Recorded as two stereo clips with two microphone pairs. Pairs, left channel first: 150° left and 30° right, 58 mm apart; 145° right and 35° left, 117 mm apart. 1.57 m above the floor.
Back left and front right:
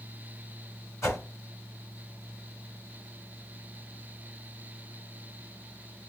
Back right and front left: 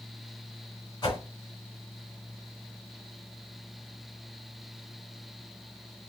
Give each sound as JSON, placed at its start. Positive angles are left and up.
{"t": 1.0, "sound": "a whoosh", "azimuth_deg": 165, "distance_m": 3.0}